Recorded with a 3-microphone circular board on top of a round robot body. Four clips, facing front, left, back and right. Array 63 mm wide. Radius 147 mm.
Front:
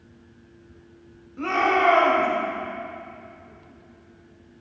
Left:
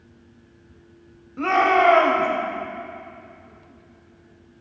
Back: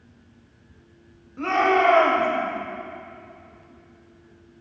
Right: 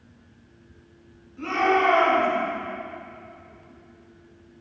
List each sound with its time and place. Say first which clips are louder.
1.4 s a shout: left 4 dB, back 2 dB; 100° left, 2.5 m